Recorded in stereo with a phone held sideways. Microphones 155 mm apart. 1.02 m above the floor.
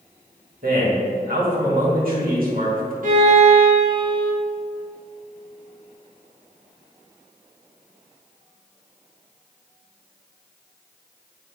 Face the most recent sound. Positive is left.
turn(degrees=-60)  # may be behind; listen again after turning